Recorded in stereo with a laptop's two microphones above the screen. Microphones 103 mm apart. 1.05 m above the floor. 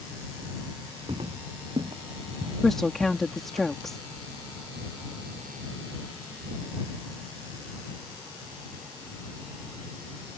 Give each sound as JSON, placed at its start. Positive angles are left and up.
{"t": 1.1, "sound": "footsteps", "side_deg": -60}
{"t": 2.6, "sound": "a woman speaking", "side_deg": 5}